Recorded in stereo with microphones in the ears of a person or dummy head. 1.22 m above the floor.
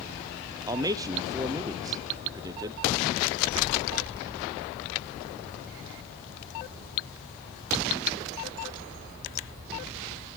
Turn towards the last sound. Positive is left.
turn(degrees=-20)  # may be behind; listen again after turning